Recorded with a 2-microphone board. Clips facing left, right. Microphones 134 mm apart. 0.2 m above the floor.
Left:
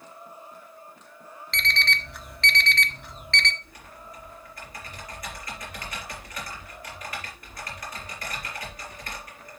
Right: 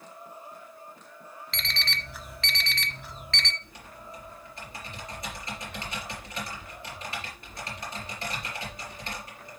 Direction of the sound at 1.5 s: Centre (ahead or behind).